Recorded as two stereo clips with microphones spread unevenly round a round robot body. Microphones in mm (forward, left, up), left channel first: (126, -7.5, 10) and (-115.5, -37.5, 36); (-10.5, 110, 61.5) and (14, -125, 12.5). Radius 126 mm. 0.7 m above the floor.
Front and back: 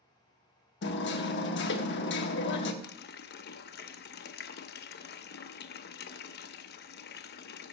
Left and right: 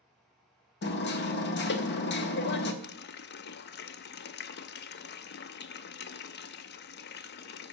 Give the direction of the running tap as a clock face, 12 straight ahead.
10 o'clock.